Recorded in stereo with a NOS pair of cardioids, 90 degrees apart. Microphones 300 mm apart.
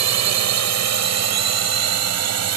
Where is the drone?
65° right; by 2.6 s 60° right.